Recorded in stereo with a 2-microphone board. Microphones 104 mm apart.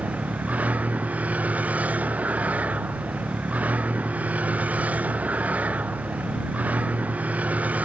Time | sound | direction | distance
0.0 | a vehicle | 15° right (ahead or behind) | ?